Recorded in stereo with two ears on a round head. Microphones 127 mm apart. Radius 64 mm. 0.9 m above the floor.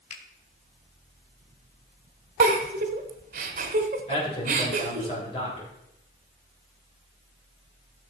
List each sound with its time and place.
0.1 s a finger snap: 50° left (ahead or behind), 2.5 m
2.4 s a giggle: 55° right (ahead or behind), 1.2 m
4.1 s a man speaking: 35° left (ahead or behind), 3.5 m